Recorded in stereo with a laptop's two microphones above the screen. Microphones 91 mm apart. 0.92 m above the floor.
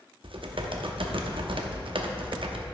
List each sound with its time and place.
0.2 s typing on a keyboard: 70° right (ahead or behind), 0.7 m